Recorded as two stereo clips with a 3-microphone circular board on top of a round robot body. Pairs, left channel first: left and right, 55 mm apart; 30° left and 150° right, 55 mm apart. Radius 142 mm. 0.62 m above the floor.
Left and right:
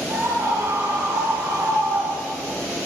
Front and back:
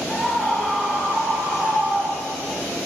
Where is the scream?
65° right, 6 m; by 2.5 s 100° right, 6 m.